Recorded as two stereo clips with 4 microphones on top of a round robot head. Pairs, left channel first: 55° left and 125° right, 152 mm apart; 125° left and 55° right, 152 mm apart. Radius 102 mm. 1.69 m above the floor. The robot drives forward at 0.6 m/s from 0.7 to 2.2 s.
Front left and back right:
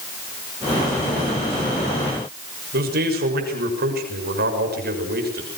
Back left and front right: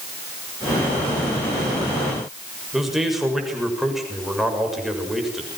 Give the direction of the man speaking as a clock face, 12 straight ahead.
5 o'clock.